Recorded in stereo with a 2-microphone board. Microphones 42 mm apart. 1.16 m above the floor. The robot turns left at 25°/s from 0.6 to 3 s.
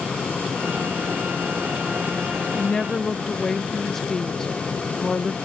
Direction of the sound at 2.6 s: 15° left (ahead or behind).